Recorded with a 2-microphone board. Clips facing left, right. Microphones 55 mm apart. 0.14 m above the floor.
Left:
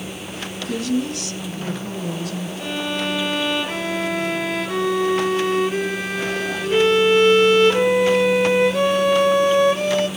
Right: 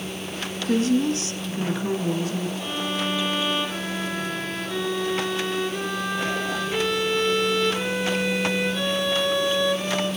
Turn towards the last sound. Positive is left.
turn(degrees=60)  # may be behind; listen again after turning